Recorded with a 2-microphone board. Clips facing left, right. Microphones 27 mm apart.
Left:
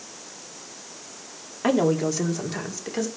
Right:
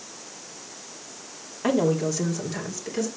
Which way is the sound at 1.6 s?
20° left (ahead or behind).